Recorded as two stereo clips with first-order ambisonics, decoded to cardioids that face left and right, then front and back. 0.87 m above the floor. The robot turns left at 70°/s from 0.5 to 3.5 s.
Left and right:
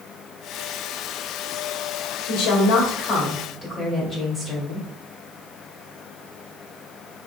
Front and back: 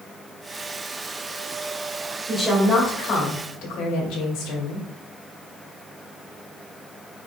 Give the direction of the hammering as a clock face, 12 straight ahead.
I don't hear hammering.